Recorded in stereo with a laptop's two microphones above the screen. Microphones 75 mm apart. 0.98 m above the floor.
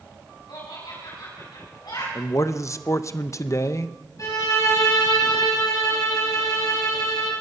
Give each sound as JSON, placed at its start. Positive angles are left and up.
{"t": 0.5, "sound": "laughter", "side_deg": 80, "distance_m": 6.5}
{"t": 2.1, "sound": "a man speaking", "side_deg": 45, "distance_m": 0.6}
{"t": 4.2, "sound": "a violin", "side_deg": 50, "distance_m": 5.0}